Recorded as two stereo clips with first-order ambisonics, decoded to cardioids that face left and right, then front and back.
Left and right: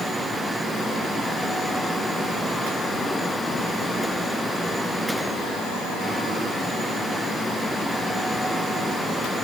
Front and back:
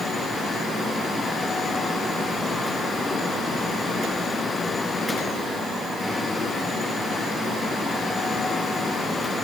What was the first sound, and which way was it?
Only background noise.